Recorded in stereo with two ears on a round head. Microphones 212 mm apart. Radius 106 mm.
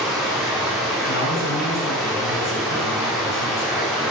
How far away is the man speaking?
About 8 m.